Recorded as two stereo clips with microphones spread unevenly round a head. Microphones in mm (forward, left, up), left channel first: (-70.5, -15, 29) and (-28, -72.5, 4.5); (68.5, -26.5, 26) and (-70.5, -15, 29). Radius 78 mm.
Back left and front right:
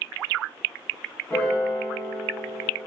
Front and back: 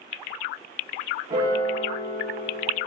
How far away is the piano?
About 1.0 m.